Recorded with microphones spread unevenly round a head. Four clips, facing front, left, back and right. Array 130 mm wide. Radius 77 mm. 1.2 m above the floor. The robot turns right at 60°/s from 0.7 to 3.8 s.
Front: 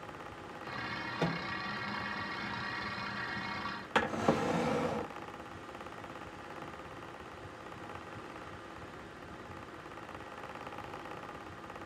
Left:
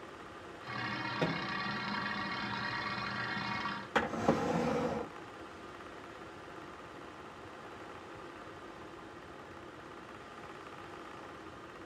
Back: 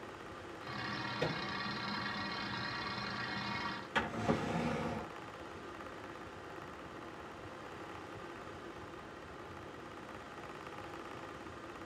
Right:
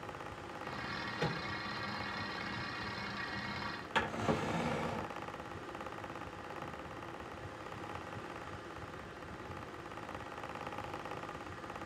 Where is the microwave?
55° left, 1.5 m; by 1.4 s 70° left, 1.5 m.